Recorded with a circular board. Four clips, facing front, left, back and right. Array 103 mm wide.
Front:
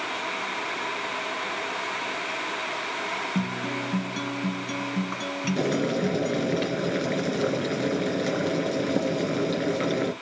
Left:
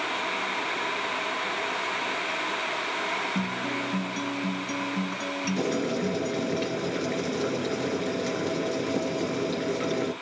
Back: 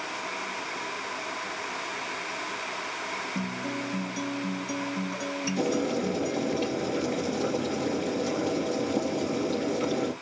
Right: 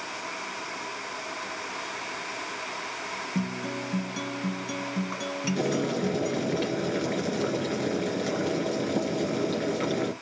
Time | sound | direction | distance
3.4 | a guitar | 15° right | 1.1 m
5.6 | boiling | straight ahead | 2 m